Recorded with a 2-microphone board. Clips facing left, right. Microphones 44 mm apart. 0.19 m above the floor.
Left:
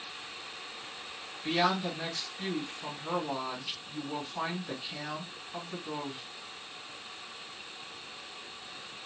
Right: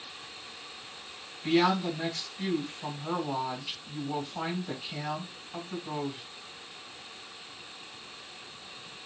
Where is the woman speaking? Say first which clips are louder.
Right 4 dB; 10° right (ahead or behind), 1.7 m.